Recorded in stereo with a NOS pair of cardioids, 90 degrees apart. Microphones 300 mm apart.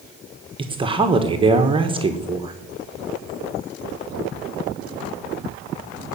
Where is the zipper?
No zipper in this recording.